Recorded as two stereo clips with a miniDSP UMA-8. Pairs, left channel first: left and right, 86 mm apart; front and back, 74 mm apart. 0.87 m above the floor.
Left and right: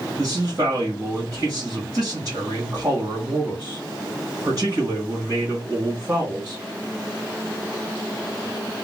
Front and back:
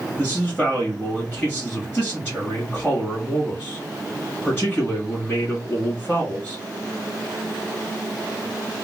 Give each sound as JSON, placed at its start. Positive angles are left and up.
{"t": 0.2, "sound": "a man speaking", "azimuth_deg": -55, "distance_m": 1.5}